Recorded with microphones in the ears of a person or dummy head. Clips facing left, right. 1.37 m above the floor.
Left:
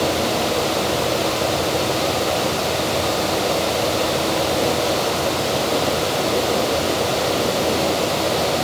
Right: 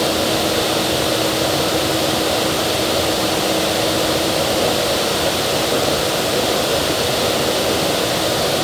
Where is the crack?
No crack in this recording.